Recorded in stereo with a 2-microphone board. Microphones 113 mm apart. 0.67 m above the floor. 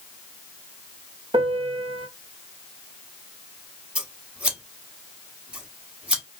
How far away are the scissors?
About 0.9 m.